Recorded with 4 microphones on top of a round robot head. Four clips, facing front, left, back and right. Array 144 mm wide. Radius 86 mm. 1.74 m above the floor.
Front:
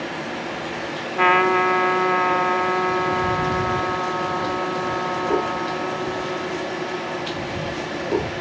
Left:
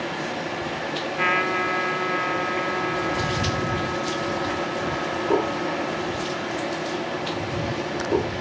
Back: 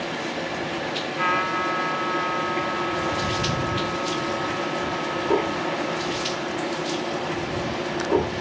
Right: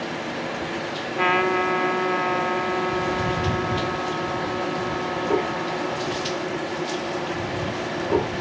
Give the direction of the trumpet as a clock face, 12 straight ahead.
1 o'clock.